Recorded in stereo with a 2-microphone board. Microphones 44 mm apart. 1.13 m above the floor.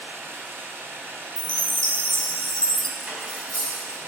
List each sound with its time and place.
0.0 s running water: 65° right (ahead or behind), 3 m
1.4 s a chime: 20° left (ahead or behind), 1.4 m
3.0 s cutlery clinking: 25° right (ahead or behind), 4 m